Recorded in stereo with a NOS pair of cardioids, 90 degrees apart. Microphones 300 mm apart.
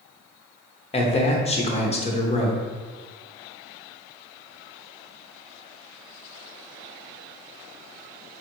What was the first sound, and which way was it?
A man speaking, 20° left.